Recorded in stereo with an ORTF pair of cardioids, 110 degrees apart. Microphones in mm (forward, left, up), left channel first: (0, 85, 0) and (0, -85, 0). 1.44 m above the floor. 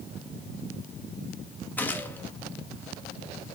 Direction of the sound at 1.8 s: 10° left.